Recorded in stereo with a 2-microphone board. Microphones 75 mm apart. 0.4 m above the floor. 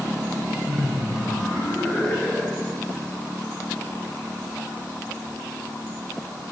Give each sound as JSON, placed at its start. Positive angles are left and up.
{"t": 0.7, "sound": "laughter", "side_deg": 20, "distance_m": 6.0}